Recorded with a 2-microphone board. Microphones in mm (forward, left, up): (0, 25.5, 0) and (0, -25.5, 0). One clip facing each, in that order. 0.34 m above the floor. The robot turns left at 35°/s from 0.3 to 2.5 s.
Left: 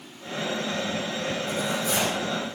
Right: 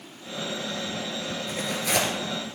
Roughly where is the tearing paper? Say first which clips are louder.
Right 2 dB; right.